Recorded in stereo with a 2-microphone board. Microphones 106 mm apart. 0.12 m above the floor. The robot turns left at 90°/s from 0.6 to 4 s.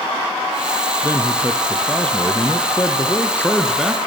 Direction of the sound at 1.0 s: 25° right (ahead or behind).